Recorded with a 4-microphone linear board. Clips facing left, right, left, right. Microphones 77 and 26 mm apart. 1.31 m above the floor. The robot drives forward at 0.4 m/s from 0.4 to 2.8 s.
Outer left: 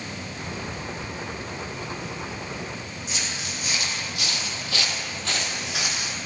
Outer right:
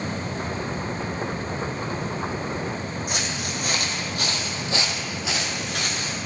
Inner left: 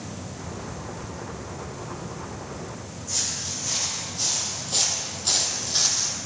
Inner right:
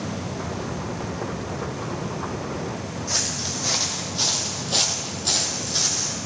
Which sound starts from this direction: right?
Footsteps, at 3.1 s.